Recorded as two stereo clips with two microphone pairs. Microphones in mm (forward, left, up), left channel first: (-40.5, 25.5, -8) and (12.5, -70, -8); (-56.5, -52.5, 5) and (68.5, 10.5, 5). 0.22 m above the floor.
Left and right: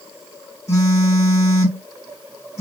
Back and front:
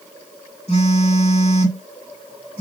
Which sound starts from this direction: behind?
A phone buzzing, at 0.7 s.